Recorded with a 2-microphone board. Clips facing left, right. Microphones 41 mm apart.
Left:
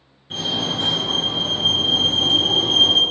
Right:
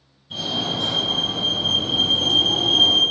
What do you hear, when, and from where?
0.3 s a fire alarm: 45° left (ahead or behind), 2.5 m